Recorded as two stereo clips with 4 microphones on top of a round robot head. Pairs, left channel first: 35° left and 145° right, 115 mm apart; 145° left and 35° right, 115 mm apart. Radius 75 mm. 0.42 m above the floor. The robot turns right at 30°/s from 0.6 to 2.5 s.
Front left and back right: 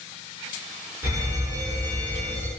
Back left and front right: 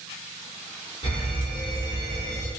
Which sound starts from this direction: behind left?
An alarm, at 1.0 s.